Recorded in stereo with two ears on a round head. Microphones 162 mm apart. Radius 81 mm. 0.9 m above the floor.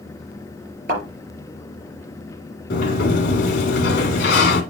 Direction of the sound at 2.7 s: 60° left (ahead or behind).